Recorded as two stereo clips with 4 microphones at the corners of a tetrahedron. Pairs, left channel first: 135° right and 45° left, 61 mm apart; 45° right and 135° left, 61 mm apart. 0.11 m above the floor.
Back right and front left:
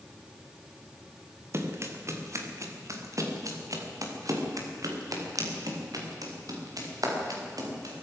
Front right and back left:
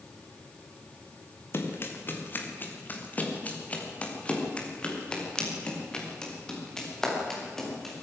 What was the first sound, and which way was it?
Running footsteps, 5° left.